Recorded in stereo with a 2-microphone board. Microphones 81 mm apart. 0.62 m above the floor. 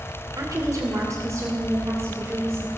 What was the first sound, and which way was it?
A woman speaking, 45° right (ahead or behind).